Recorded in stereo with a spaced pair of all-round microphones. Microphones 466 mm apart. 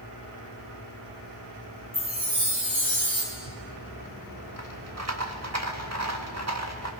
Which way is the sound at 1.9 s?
65° right (ahead or behind).